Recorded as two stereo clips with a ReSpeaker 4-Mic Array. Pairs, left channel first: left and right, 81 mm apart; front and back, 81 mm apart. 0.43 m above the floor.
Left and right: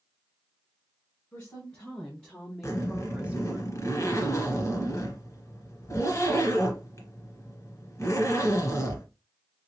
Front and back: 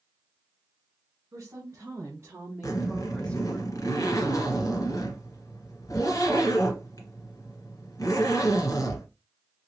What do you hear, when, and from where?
1.3 s a woman speaking: 150° left, 1.7 m; by 3.6 s 45° right, 1.1 m
2.6 s a zipper: 40° left, 1.3 m